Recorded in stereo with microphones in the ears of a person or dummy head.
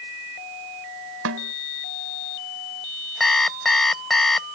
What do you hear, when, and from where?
1.2 s a snare drum: 75° right (ahead or behind)
3.2 s an alarm clock: centre (ahead or behind)